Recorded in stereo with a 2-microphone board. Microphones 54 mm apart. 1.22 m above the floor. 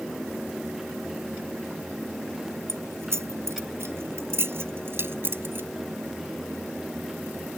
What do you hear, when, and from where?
2.7 s keys jangling: 60° right (ahead or behind); by 5.7 s 45° right (ahead or behind)